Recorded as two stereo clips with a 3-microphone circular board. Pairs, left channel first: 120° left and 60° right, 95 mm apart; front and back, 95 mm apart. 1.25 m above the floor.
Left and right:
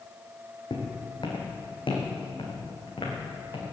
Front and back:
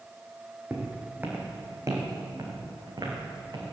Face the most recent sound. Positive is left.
turn(degrees=145)